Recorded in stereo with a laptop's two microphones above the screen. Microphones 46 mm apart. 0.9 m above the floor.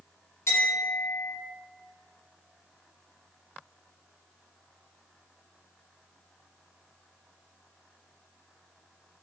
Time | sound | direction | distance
0.5 | a clink | 80° left | 1.6 m